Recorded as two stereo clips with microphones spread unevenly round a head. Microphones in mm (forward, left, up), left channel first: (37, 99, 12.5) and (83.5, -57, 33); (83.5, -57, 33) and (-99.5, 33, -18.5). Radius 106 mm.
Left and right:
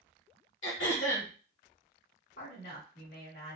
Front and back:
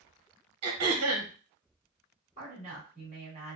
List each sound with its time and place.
0.6 s throat clearing: 135° left, 1.1 m
2.4 s a woman speaking: 90° left, 2 m